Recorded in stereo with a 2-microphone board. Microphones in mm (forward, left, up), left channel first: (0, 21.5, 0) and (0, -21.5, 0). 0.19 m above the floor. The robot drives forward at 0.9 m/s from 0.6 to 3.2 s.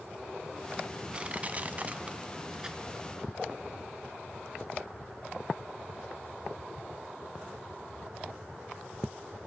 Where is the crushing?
25° right (ahead or behind), 0.7 m; by 3.6 s 10° right (ahead or behind), 1.5 m.